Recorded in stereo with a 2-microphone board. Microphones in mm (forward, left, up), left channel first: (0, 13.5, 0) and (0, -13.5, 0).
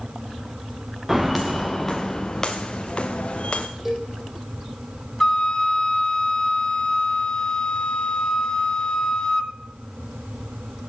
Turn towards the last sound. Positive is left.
turn(degrees=25)  # may be behind; listen again after turning